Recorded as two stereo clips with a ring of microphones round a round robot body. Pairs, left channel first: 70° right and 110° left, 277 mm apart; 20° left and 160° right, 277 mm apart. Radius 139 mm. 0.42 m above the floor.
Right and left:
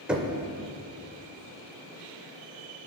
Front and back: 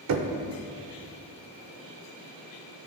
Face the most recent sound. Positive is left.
turn(degrees=-160)